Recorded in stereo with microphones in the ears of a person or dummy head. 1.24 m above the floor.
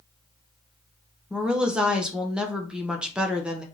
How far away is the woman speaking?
About 0.5 m.